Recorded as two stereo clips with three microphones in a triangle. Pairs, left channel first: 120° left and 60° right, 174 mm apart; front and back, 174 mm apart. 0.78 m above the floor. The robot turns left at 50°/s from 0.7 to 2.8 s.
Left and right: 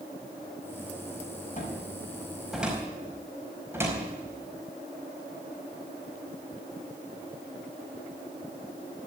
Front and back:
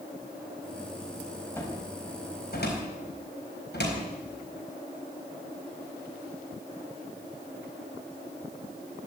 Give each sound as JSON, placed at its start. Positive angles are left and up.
{"t": 1.6, "sound": "a cupboard door", "azimuth_deg": 80, "distance_m": 4.5}